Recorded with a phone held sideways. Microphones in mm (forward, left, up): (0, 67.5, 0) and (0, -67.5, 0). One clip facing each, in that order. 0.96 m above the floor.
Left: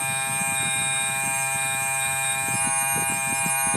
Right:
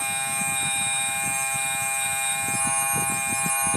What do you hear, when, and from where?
0.0 s a machine running: 60° left (ahead or behind), 1.1 m